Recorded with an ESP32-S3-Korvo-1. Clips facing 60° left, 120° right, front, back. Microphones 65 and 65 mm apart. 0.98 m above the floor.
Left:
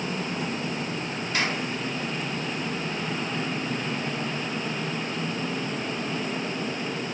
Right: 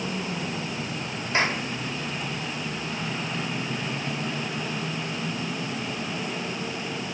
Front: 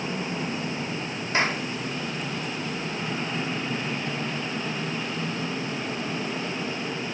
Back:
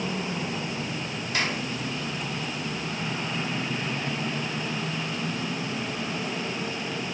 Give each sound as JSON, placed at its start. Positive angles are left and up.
{"t": 1.3, "sound": "a clap", "azimuth_deg": -60, "distance_m": 3.5}